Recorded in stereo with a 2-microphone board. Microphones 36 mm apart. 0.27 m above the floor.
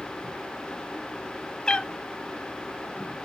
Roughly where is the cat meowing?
Left.